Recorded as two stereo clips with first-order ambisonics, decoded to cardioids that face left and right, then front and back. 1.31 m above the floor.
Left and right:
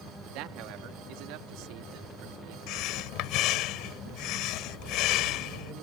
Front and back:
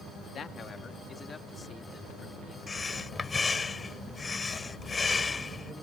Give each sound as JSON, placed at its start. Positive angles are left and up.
{"t": 0.3, "sound": "a man speaking", "azimuth_deg": -65}
{"t": 2.7, "sound": "breathing", "azimuth_deg": 75}